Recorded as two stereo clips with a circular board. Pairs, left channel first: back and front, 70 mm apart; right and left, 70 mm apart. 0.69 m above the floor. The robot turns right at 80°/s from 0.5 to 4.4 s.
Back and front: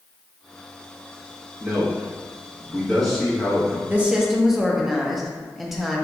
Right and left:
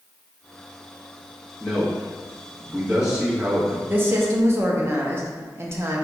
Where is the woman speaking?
50° left, 0.6 m; by 6.0 s 90° left, 0.6 m.